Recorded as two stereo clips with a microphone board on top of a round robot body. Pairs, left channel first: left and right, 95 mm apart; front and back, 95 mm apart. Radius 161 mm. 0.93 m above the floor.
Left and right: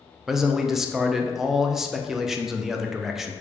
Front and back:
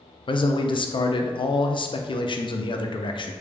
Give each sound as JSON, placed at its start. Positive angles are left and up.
{"t": 0.3, "sound": "a man speaking", "azimuth_deg": -5, "distance_m": 0.5}